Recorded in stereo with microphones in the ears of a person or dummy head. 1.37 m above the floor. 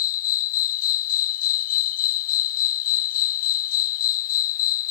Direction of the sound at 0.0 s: 50° left (ahead or behind).